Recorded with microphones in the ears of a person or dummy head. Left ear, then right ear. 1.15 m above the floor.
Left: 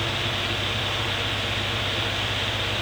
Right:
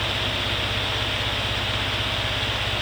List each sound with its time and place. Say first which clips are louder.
0.0 s an engine running: right 1 dB; 30° left (ahead or behind), 6.5 m